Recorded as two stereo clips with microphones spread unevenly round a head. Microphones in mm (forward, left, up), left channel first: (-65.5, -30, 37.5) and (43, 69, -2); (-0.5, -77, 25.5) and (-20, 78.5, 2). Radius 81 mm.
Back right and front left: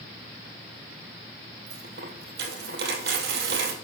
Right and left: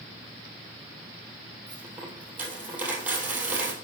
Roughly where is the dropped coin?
Ahead.